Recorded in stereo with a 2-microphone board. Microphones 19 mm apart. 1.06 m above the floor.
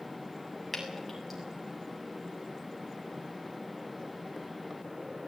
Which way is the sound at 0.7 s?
5° right (ahead or behind).